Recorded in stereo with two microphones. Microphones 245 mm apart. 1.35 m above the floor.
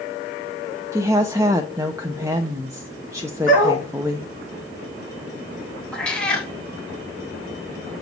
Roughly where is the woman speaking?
Centre.